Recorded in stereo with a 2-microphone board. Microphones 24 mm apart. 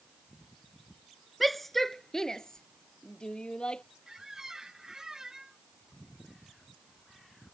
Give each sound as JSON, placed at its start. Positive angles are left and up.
{"t": 1.4, "sound": "a shout", "side_deg": 0}
{"t": 4.1, "sound": "a squeak", "side_deg": -20}